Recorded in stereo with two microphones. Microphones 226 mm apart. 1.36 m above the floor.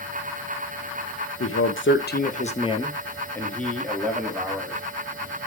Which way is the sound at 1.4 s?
80° left.